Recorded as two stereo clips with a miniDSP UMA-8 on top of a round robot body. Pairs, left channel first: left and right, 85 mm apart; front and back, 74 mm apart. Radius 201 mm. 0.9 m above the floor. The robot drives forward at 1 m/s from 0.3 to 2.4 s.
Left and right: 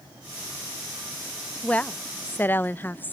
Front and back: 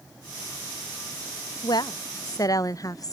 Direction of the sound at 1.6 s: 15° left.